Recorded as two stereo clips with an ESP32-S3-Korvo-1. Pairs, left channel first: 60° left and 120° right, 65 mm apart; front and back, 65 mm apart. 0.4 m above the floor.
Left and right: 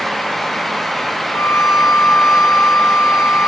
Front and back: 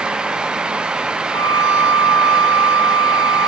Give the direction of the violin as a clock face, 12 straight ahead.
11 o'clock.